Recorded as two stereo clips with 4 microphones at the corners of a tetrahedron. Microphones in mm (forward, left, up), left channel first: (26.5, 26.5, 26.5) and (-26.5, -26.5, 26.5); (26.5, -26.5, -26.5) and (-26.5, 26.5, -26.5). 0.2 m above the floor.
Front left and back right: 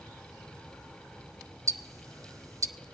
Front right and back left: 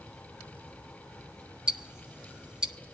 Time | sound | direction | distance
1.7 | ticking | 150° right | 0.5 m